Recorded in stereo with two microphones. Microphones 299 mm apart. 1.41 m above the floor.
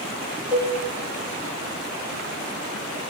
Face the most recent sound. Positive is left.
turn(degrees=-5)  # may be behind; listen again after turning